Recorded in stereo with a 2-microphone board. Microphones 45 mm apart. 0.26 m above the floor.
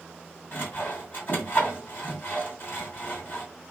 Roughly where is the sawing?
Left.